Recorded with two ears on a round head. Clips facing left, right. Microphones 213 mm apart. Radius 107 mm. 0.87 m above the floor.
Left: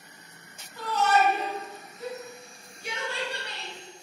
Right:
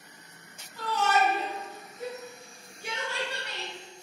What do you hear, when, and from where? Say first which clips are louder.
0.8 s a shout: left 2 dB; 40° left (ahead or behind), 0.8 m; by 4.0 s 65° right (ahead or behind), 1.5 m